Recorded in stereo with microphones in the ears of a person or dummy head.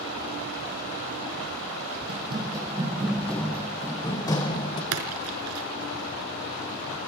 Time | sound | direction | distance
2.1 | running footsteps | 25° right (ahead or behind) | 3 m
4.9 | a splash | 80° right | 4.5 m